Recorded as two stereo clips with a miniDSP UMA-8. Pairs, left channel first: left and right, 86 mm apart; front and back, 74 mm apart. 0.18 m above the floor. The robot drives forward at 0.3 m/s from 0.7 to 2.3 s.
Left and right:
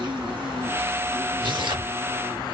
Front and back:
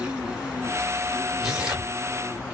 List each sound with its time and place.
0.0 s an insect: 100° right, 3 m; by 2.5 s 110° right, 3 m
1.4 s tearing paper: 95° right, 3 m; by 1.9 s 100° right, 3 m